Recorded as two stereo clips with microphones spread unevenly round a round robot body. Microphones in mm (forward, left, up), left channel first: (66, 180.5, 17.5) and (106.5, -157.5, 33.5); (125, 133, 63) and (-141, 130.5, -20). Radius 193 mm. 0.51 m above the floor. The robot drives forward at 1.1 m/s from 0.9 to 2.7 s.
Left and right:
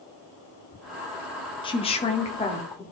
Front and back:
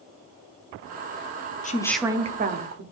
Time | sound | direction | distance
1.6 | a woman speaking | 60° left | 0.8 m